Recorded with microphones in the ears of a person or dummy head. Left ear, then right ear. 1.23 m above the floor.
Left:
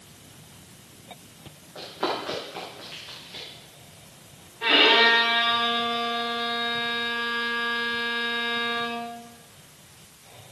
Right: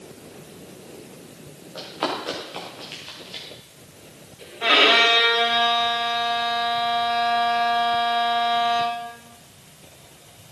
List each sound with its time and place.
1.8 s running footsteps: 45° right (ahead or behind), 7 m
4.6 s a violin: 35° right (ahead or behind), 2.5 m